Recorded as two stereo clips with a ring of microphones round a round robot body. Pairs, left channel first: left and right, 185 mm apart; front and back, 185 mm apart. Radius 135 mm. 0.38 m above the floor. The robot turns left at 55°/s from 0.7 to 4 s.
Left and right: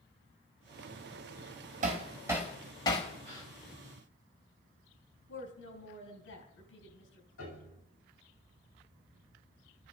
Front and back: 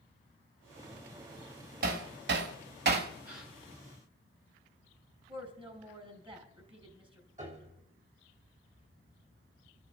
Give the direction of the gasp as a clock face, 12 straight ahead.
4 o'clock.